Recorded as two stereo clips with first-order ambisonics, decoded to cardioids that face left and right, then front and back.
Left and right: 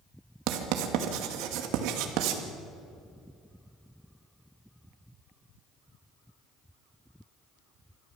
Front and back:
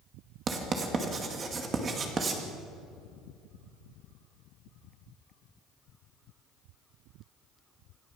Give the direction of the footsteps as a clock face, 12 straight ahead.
I don't hear footsteps.